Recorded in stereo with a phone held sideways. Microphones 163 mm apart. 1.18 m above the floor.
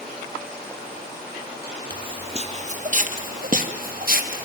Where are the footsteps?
30° right (ahead or behind), 1.8 m; by 4.5 s 55° right (ahead or behind), 3 m.